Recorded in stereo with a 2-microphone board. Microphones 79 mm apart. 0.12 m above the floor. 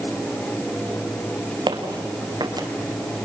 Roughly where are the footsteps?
Right.